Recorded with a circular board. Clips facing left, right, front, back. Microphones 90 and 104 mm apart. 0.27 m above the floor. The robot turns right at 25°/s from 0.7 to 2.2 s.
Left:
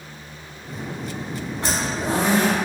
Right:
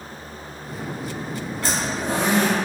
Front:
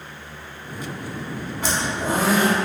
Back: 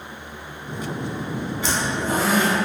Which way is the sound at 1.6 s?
20° left.